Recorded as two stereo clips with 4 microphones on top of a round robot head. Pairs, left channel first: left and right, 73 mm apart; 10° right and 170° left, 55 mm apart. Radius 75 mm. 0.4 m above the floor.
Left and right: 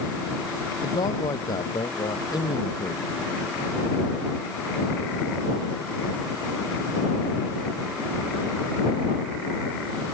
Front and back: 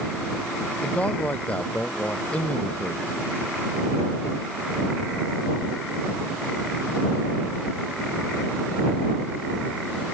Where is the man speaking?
55° left.